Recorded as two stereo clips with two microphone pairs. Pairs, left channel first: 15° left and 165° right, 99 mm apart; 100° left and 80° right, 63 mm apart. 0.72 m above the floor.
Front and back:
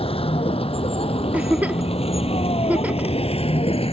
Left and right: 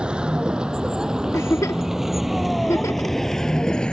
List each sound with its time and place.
0.0 s a vehicle: 5° right; by 3.9 s 25° left
1.3 s a giggle: 125° left